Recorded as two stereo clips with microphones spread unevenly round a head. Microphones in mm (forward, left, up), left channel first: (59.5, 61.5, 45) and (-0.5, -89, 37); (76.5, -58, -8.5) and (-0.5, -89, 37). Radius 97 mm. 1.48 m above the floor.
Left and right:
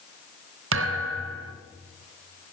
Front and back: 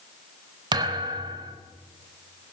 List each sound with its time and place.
0.7 s a thud: 135° right, 3.5 m